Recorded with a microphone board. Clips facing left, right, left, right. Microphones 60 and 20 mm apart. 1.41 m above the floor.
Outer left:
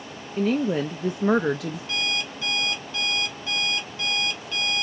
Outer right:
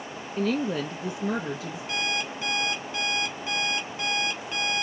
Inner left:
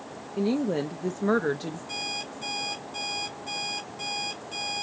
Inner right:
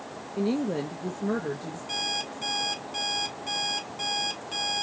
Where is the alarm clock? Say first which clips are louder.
Outer right 1 dB, inner right 5 dB; 20° right (ahead or behind), 2.5 m.